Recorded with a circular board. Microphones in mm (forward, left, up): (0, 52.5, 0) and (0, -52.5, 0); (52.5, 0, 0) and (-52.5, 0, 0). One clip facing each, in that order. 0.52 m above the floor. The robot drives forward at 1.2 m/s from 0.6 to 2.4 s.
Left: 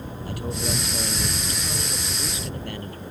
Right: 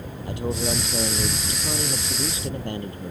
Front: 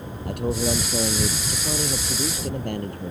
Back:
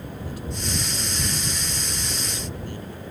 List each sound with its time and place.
0.2 s a man speaking: 25° right